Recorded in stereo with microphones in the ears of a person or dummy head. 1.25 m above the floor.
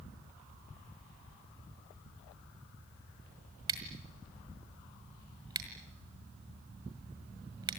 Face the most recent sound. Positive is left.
turn(degrees=-25)  # may be behind; listen again after turning